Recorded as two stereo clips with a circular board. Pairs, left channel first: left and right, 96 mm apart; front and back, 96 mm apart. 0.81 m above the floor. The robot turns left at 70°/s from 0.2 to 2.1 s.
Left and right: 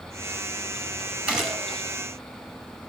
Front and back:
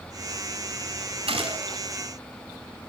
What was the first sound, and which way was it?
A gunshot, 165° right.